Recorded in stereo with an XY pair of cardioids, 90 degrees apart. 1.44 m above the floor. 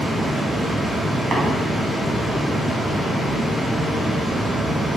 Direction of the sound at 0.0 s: Straight ahead.